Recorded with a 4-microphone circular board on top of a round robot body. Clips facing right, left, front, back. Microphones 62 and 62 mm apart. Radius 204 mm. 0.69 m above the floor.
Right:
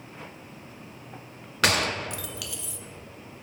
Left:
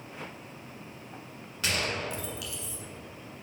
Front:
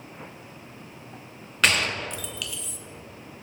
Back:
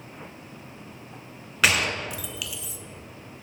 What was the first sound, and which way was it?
A gunshot, 95° right.